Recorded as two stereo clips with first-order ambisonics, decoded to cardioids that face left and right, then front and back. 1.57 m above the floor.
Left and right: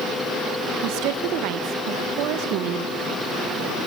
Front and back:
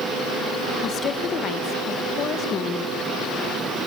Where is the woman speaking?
55° right, 2 m.